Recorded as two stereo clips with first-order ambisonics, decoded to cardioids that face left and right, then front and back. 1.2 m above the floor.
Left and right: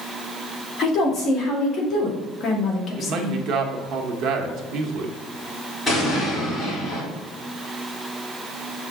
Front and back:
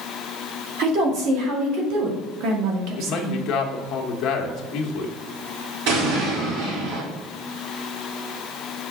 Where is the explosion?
Straight behind, 3 m.